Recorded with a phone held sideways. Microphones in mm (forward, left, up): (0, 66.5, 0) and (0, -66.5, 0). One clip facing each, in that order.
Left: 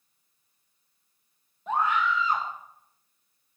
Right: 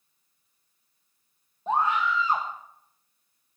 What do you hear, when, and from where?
1.7 s a scream: 30° right (ahead or behind), 1.5 m